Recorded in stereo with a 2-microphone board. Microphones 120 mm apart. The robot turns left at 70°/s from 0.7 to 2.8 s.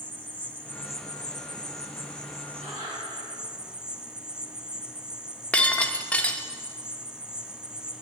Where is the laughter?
55° right (ahead or behind), 4.5 m; by 3.2 s 40° right (ahead or behind), 4.5 m.